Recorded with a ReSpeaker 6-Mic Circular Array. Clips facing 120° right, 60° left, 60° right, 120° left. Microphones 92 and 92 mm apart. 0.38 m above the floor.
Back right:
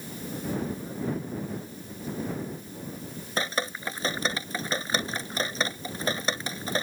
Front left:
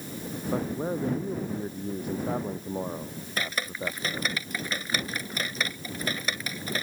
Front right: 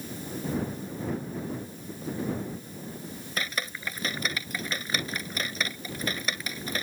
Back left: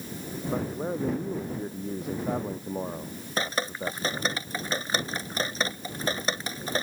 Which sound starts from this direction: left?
A man speaking, at 0.5 s.